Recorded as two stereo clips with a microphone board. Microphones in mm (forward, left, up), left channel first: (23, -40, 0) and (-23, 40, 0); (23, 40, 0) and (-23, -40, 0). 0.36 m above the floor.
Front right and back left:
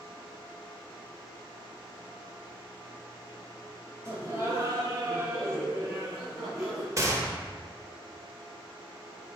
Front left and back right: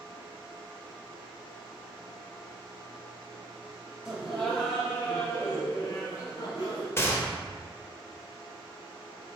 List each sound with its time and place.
4.0 s laughter: 160° left, 1.2 m; by 6.9 s 60° left, 1.5 m
7.0 s a gunshot: 100° left, 0.6 m